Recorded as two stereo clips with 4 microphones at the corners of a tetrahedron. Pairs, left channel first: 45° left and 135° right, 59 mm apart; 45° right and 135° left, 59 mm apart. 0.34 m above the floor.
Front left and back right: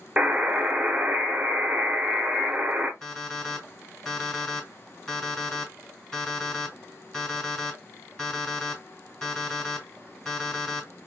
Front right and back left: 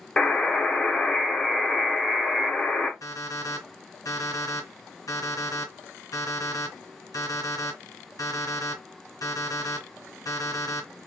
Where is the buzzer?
105° right, 0.6 m.